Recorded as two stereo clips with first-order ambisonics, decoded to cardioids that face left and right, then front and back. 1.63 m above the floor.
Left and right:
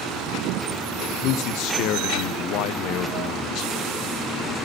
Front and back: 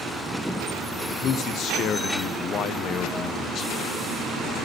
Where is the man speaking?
55° left, 0.9 m.